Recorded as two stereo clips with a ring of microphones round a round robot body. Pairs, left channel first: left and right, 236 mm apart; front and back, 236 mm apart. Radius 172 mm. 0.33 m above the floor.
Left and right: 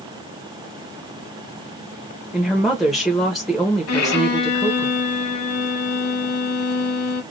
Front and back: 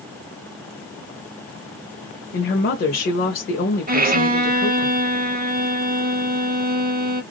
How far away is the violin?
About 0.8 m.